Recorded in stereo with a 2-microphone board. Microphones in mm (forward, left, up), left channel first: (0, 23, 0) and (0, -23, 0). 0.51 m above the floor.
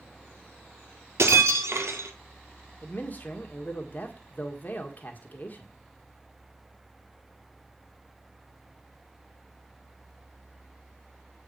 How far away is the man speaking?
About 1.7 m.